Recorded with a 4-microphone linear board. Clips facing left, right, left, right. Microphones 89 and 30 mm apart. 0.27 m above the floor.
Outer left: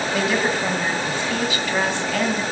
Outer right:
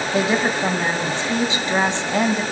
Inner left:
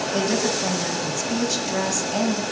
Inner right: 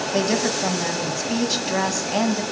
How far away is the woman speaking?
About 1.8 m.